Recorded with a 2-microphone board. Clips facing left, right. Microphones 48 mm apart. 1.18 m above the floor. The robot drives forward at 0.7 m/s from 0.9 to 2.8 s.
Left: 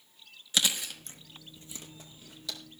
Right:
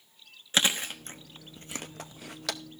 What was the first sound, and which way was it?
Chewing, 40° right (ahead or behind).